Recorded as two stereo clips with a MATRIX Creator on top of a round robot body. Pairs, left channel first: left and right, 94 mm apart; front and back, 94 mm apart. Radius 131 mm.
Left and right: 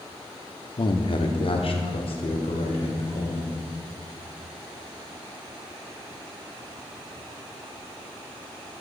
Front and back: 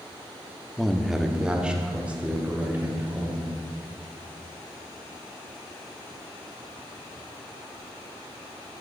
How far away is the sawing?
I don't hear sawing.